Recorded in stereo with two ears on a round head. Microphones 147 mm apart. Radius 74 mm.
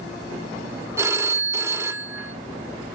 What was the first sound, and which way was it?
A phone ringing, 15° right (ahead or behind).